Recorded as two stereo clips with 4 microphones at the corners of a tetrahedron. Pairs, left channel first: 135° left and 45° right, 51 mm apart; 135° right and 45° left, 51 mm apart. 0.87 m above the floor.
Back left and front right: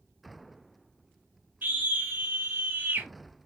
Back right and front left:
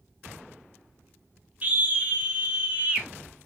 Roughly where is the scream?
Ahead.